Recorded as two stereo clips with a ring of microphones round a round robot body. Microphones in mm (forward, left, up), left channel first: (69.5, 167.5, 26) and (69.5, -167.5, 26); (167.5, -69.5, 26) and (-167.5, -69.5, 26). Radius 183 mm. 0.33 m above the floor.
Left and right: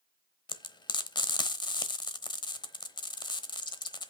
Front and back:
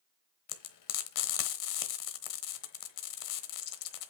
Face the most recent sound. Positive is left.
turn(degrees=15)